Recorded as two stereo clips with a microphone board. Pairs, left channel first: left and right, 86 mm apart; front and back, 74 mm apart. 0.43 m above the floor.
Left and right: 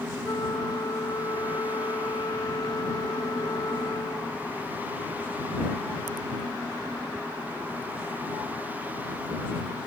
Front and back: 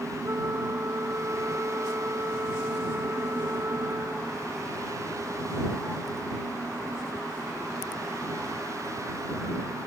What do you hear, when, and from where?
0.2 s a flute: 130° left